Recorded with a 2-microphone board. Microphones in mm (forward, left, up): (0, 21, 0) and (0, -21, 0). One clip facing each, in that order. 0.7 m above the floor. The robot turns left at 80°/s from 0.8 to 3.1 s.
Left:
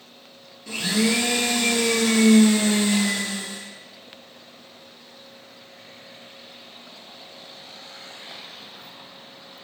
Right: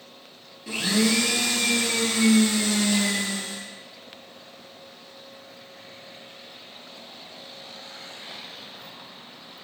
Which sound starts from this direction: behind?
A blender, at 0.7 s.